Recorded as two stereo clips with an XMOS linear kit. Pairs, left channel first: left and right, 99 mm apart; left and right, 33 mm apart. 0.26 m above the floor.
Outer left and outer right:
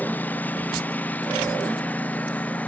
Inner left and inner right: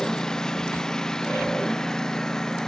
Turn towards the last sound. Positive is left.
turn(degrees=15)  # may be behind; listen again after turning